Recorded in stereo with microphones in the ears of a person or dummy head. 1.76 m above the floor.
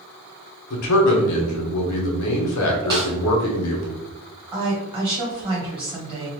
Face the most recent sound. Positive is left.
turn(degrees=-20)  # may be behind; listen again after turning